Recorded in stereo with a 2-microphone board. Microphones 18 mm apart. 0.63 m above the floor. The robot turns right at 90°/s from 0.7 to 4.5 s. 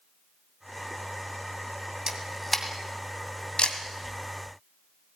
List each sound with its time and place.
2.1 s a camera shutter: 25° right (ahead or behind), 2 m; by 3.8 s 55° left (ahead or behind), 2 m